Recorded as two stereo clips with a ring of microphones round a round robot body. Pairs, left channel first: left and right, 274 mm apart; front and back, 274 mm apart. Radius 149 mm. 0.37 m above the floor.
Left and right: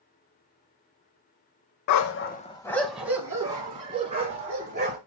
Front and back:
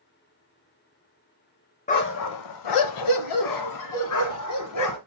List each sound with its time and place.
1.9 s a dog barking: 65° left, 0.6 m; by 5.0 s 20° right, 3 m